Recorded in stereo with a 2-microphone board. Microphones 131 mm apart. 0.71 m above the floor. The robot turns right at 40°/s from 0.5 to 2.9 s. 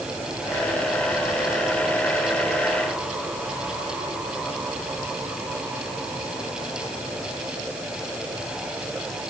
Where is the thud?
I don't hear a thud.